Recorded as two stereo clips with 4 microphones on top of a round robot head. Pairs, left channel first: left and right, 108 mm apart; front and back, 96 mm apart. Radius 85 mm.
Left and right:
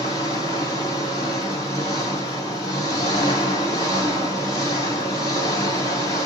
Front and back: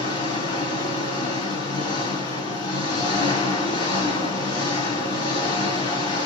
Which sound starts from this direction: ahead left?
An engine running, at 0.0 s.